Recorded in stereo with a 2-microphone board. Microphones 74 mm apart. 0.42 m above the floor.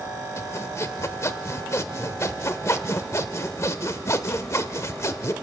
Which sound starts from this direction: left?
Sawing, at 0.4 s.